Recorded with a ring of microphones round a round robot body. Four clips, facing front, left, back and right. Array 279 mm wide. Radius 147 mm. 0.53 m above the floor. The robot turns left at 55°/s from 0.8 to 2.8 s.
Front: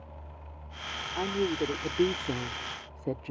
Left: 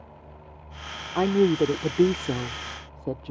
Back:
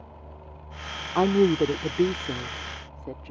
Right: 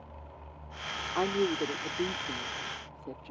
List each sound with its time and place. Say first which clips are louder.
1.1 s a woman speaking: left 9 dB, back 10 dB; 155° left; by 3.3 s 60° left